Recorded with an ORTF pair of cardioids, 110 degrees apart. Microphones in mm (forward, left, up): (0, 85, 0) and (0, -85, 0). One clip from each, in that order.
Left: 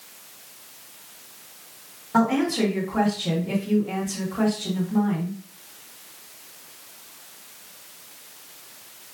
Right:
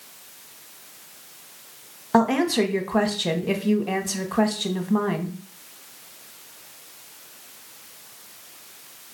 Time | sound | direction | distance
2.1 | a woman speaking | 60° right | 1.2 m